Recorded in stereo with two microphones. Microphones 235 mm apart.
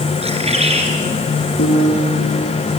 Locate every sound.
0.2 s a bird: 25° right (ahead or behind), 4 m
1.6 s a piano: 75° left (ahead or behind), 4.5 m